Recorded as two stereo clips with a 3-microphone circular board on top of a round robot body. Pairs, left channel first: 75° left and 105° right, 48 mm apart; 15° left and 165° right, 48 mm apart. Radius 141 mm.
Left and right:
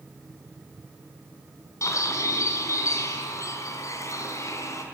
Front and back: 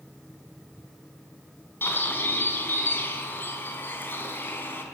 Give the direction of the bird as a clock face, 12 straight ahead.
10 o'clock.